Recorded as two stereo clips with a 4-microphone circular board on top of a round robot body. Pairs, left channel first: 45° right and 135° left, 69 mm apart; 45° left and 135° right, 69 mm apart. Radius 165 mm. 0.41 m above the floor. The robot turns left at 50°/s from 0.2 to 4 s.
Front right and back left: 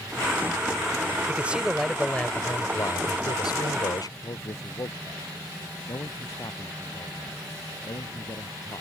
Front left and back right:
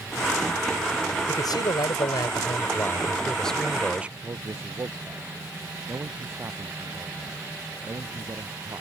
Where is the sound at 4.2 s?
80° right.